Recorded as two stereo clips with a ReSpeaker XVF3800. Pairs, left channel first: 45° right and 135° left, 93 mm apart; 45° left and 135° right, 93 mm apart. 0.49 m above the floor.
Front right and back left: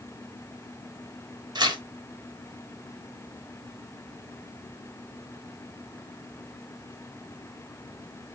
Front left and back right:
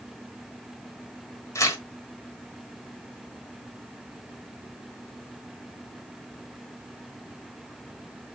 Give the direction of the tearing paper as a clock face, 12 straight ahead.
9 o'clock.